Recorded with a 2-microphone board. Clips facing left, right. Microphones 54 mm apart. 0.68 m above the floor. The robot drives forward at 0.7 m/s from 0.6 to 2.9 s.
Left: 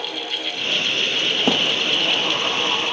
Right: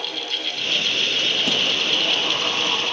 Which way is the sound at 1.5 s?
45° left (ahead or behind).